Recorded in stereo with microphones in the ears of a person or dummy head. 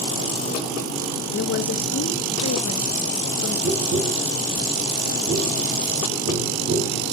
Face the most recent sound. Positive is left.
turn(degrees=-70)  # may be behind; listen again after turning